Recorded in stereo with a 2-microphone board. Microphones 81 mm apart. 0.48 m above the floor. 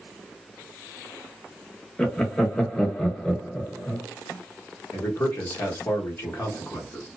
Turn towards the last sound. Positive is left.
turn(degrees=30)  # may be behind; listen again after turning